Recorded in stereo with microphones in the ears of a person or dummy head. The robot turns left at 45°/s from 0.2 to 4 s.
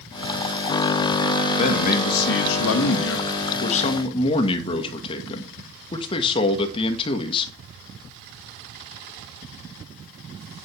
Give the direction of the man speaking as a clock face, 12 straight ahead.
7 o'clock.